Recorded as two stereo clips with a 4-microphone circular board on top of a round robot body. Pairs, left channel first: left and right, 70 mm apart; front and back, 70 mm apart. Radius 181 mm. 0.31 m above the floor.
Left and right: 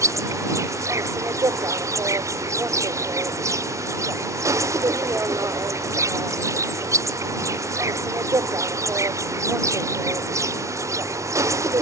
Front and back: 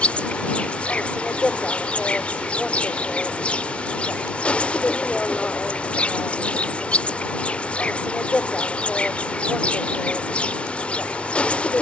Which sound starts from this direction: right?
An insect, at 0.0 s.